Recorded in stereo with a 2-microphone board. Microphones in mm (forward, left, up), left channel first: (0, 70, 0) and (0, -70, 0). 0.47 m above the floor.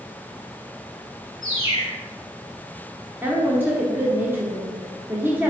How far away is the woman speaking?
About 0.8 m.